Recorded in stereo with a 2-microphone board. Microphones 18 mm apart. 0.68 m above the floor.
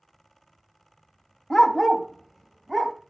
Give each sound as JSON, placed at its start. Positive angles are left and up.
{"t": 1.5, "sound": "a dog barking", "side_deg": 25, "distance_m": 0.7}